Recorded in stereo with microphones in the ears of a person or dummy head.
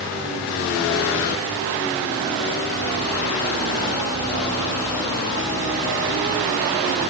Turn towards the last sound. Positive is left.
No sound to turn to.